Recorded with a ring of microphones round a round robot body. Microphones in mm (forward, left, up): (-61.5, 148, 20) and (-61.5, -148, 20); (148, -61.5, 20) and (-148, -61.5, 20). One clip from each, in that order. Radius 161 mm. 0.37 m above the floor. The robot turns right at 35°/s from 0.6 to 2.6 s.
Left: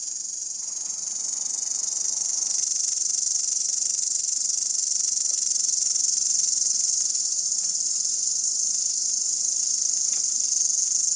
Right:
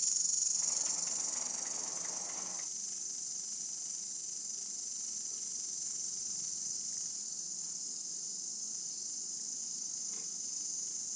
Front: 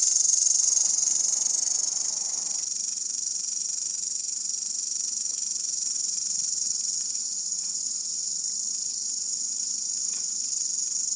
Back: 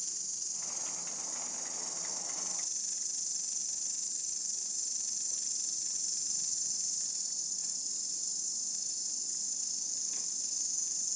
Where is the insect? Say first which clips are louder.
Left 1 dB, front 15 dB; 10° left, 0.7 m; by 11.2 s 80° left, 0.7 m.